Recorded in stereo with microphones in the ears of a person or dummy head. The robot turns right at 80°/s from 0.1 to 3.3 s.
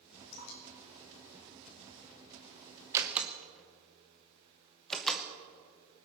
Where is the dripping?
75° left (ahead or behind), 5 m; by 2.2 s 70° right (ahead or behind), 5 m.